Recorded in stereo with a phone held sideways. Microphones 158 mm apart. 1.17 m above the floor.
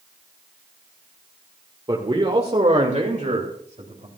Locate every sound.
1.9 s a man speaking: 30° right (ahead or behind), 1.5 m; by 4.1 s 60° right (ahead or behind), 3 m